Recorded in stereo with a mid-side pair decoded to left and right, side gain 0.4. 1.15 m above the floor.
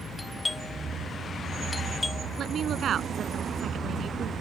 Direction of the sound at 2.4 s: 60° right.